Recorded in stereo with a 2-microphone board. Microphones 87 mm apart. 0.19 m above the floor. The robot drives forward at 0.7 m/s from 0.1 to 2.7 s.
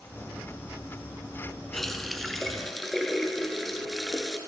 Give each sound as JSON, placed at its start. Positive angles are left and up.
{"t": 1.7, "sound": "a running tap", "side_deg": 5, "distance_m": 1.2}